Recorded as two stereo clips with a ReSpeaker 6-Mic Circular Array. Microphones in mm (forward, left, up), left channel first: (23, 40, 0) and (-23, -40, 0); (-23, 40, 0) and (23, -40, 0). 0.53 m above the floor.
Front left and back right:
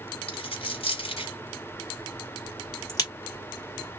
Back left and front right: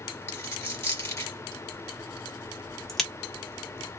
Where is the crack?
35° left, 1.5 m.